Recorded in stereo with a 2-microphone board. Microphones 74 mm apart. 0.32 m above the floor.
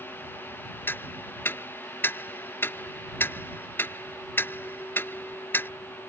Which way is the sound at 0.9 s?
30° left (ahead or behind).